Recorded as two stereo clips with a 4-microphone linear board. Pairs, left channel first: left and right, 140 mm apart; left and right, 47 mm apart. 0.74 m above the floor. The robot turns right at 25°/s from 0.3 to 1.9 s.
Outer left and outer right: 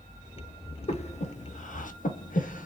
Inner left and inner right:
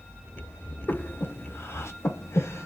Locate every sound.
0.9 s breathing: 50° left (ahead or behind), 0.7 m; by 2.7 s 70° left (ahead or behind), 0.7 m